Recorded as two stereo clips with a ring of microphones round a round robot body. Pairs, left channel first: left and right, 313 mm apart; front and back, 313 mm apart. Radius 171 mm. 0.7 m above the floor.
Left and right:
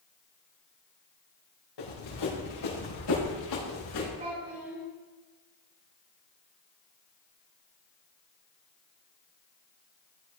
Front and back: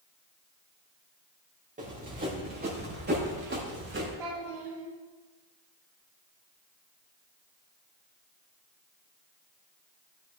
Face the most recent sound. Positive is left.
turn(degrees=-160)